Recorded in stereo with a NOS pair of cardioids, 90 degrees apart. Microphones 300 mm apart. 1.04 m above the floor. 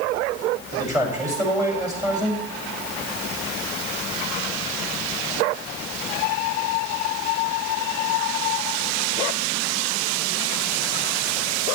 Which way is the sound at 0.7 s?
10° right.